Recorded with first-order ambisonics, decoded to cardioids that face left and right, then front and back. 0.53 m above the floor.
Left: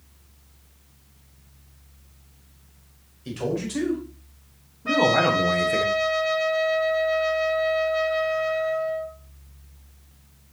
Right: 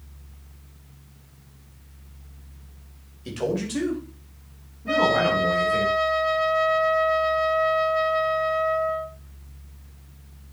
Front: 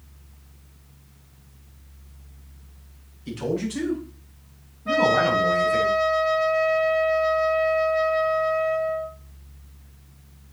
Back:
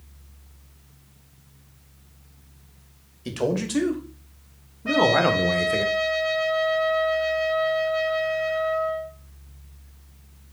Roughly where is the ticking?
No ticking in this recording.